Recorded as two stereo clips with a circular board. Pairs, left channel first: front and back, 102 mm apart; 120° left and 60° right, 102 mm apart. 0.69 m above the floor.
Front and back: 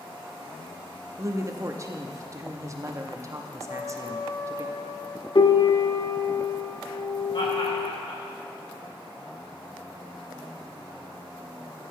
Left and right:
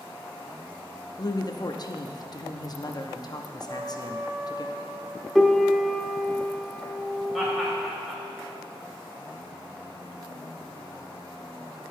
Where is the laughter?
25° left, 2.5 m.